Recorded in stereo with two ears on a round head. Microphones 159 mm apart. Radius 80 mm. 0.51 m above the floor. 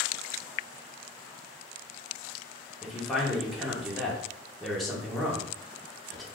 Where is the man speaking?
Centre (ahead or behind), 0.9 m.